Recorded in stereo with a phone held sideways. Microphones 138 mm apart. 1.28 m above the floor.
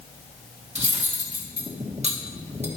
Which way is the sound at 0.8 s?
50° right (ahead or behind).